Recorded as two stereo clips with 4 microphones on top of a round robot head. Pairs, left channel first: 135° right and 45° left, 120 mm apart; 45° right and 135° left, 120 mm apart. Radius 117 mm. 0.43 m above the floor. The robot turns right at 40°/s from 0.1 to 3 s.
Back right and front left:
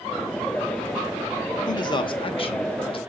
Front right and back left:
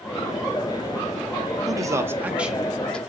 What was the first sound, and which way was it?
A man speaking, straight behind.